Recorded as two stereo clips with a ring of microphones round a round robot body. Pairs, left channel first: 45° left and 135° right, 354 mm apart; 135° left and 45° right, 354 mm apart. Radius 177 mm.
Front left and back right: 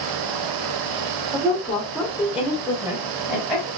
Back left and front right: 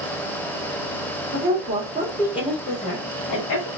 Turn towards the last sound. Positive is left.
turn(degrees=145)